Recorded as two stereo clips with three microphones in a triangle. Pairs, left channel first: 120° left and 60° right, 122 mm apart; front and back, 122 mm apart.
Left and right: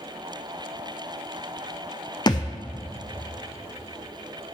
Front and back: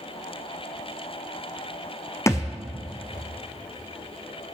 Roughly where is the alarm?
No alarm in this recording.